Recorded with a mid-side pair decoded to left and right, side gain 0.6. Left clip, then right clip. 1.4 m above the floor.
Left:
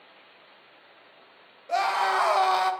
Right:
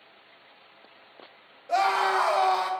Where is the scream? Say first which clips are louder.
Right 1 dB; 10° left, 1.9 m; by 2.7 s 40° left, 1.1 m.